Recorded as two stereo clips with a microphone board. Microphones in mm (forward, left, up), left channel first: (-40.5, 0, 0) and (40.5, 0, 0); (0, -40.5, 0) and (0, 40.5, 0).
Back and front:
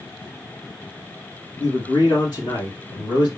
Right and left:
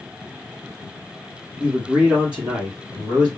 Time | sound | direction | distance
1.6 | a man speaking | 165° left | 3 m